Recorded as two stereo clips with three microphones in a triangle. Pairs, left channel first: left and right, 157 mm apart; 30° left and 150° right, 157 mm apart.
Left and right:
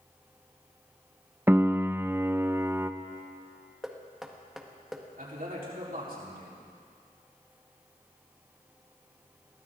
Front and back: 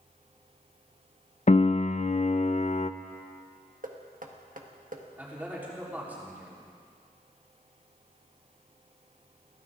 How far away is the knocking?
About 1.4 m.